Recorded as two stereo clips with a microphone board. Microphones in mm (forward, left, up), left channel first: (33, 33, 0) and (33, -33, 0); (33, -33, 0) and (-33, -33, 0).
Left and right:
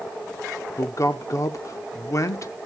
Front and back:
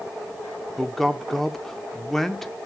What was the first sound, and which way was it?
A man speaking, 85° left.